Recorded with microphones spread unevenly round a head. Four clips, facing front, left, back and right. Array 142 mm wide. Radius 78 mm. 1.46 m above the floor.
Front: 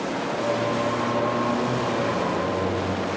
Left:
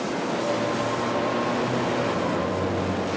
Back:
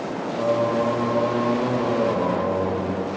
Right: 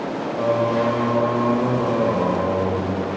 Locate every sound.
0.4 s singing: 125° right, 0.9 m